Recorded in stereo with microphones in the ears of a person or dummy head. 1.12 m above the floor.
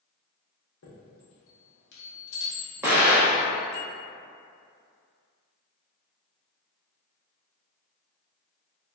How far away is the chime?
About 1.2 m.